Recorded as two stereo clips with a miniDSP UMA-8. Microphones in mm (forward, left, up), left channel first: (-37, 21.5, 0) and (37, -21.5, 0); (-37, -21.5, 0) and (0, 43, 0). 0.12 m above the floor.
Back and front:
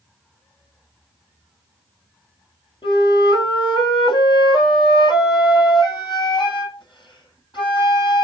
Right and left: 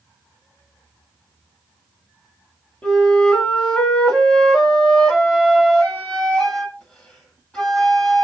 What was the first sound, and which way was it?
A flute, 165° left.